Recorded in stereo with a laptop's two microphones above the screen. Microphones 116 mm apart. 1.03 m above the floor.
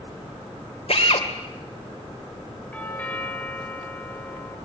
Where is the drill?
60° left (ahead or behind), 2.5 m.